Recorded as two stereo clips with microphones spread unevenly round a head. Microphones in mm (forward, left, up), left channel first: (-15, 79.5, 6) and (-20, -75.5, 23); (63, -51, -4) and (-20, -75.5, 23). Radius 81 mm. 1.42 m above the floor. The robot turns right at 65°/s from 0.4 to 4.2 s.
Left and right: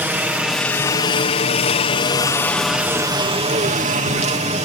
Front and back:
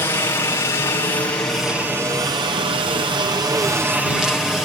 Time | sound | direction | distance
0.0 | a helicopter | 10° right | ?